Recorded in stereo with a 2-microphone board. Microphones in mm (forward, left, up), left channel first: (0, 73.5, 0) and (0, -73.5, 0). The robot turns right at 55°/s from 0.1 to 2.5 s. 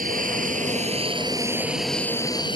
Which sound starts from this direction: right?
An aircraft, at 0.0 s.